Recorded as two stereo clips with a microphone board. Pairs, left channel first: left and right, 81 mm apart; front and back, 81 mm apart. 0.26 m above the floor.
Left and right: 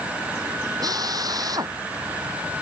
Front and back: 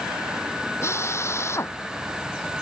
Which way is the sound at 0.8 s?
55° right.